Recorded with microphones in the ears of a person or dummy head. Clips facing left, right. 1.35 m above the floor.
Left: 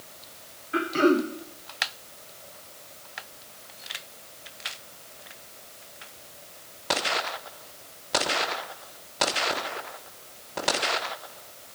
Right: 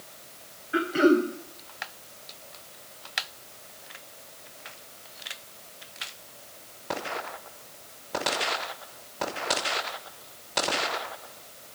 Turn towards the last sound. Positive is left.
turn(degrees=-5)  # may be behind; listen again after turning